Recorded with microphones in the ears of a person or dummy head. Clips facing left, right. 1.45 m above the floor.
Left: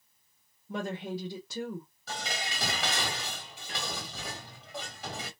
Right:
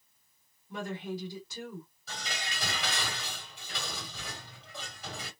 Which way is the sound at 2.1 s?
55° left (ahead or behind).